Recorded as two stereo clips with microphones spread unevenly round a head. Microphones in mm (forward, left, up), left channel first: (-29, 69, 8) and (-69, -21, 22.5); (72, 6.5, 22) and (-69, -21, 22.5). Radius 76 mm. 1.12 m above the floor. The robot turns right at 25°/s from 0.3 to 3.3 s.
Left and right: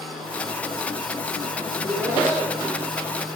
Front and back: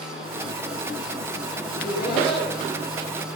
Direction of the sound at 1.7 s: 55° right.